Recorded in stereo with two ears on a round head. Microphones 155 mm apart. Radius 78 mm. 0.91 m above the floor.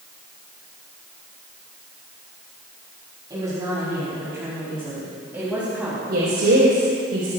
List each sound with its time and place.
3.3 s a woman speaking: 25° right (ahead or behind), 5.5 m; by 6.0 s 10° right (ahead or behind), 4.5 m
6.1 s a woman speaking: 80° right, 4.5 m